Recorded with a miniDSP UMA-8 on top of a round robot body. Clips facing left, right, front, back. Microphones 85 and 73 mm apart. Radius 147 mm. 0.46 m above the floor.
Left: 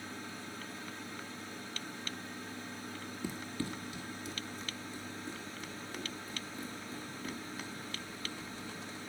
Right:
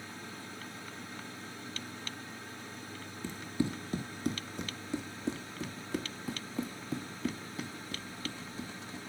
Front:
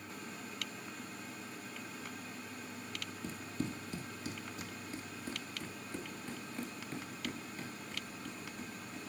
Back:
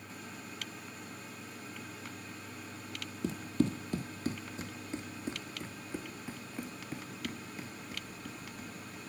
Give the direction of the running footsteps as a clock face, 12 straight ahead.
6 o'clock.